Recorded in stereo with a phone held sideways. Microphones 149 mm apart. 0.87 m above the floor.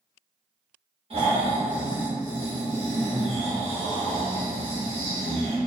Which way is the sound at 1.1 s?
45° right (ahead or behind).